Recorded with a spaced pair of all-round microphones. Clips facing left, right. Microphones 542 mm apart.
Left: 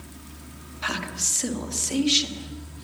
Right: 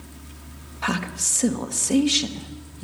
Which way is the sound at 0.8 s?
85° right.